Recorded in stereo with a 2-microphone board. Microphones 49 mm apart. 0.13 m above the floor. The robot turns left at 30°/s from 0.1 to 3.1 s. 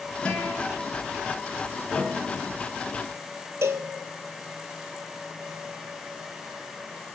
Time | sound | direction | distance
0.2 | a guitar | 25° left (ahead or behind) | 1.6 m
1.9 | a piano | 15° left (ahead or behind) | 1.3 m
3.6 | a cowbell | 75° right (ahead or behind) | 0.5 m